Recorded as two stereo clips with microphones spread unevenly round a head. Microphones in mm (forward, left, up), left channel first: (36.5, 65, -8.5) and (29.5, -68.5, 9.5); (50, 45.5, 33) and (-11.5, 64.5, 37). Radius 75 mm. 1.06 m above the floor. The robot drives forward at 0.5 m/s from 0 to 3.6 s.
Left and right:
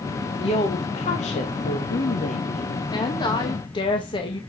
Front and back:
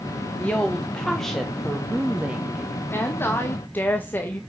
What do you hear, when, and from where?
0.4 s a woman speaking: 50° left, 1.6 m; by 2.8 s 105° left, 1.3 m
2.9 s a woman speaking: 30° left, 1.8 m; by 4.4 s 40° left, 1.6 m